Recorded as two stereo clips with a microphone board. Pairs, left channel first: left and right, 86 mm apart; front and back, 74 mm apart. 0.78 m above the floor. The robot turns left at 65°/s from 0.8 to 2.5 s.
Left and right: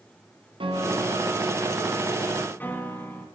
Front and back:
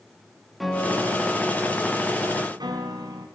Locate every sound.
0.6 s a piano: 90° right, 4 m; by 3.3 s 160° left, 4 m